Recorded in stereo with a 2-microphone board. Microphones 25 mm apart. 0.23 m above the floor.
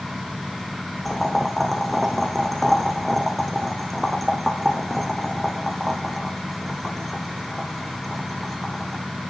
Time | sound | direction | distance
1.1 | boiling | centre (ahead or behind) | 3.5 m